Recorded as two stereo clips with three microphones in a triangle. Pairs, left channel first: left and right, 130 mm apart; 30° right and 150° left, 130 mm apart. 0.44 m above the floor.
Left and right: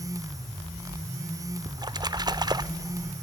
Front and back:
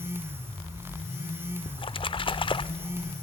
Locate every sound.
1.7 s a splash: 45° right, 0.6 m